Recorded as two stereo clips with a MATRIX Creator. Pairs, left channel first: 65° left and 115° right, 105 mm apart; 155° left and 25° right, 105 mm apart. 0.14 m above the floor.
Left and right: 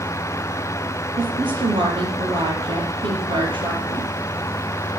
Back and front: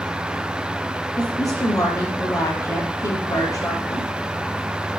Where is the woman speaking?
145° right, 4.5 m.